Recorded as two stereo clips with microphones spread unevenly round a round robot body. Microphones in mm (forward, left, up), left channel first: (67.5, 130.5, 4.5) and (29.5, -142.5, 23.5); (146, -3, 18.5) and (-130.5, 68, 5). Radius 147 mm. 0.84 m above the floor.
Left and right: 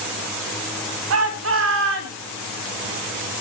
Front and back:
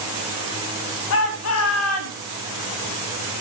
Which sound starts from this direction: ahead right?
A shout, at 1.1 s.